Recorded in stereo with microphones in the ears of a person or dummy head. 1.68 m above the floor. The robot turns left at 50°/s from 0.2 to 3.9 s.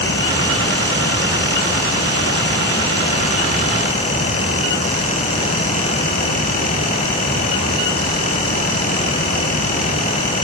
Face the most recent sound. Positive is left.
No sound to turn to.